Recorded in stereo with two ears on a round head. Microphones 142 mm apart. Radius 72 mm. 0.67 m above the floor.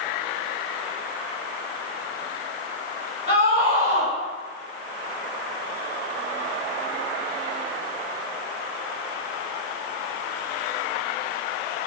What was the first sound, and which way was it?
A scream, 65° left (ahead or behind).